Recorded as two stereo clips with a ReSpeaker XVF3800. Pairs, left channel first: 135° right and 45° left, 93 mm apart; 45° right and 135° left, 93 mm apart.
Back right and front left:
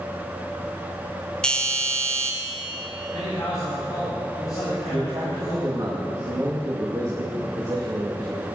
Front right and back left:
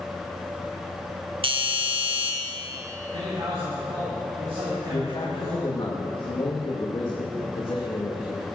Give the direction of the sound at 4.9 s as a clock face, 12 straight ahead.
12 o'clock.